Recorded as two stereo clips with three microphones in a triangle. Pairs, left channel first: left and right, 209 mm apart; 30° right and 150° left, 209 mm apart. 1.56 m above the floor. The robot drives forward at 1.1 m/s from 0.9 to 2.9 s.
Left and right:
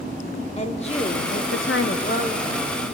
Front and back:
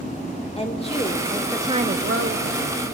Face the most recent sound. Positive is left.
turn(degrees=160)